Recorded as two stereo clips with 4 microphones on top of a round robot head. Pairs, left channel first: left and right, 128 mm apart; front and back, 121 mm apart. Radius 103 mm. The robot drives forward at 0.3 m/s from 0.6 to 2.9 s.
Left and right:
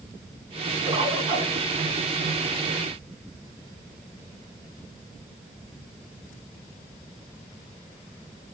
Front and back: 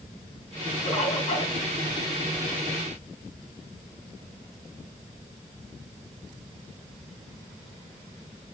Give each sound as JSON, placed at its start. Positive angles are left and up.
{"t": 0.9, "sound": "a bird", "azimuth_deg": -40, "distance_m": 1.5}